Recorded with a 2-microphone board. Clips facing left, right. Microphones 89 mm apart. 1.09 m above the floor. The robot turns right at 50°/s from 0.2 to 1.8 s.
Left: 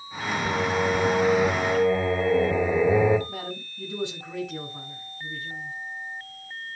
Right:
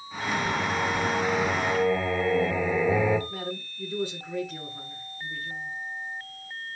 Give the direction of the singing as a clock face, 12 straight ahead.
9 o'clock.